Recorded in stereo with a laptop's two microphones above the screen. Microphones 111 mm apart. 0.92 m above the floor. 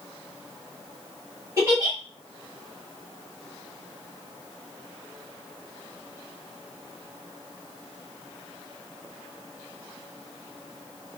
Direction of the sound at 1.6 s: 25° right (ahead or behind).